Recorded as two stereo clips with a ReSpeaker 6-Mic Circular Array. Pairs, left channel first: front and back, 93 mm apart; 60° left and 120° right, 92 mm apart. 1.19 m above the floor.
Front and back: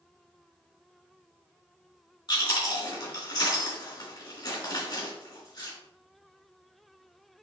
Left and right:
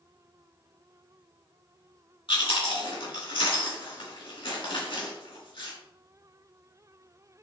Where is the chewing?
35° left, 3 m.